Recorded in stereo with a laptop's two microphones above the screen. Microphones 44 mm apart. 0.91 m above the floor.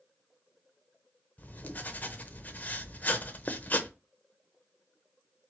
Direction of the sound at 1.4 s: 40° left (ahead or behind).